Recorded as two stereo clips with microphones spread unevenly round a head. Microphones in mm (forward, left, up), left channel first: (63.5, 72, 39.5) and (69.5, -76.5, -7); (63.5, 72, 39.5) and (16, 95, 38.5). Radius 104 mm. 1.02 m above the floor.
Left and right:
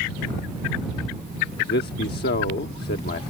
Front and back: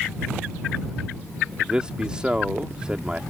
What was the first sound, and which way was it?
A man speaking, 80° left.